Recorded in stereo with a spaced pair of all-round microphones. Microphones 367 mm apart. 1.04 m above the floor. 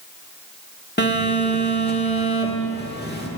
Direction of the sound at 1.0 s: 25° left (ahead or behind).